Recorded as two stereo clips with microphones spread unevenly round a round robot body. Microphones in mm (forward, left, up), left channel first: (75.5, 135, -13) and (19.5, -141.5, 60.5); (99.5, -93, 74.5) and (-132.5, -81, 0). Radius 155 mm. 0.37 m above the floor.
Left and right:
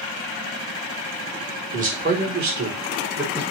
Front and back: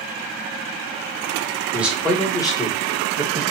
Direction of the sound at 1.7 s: 160° right.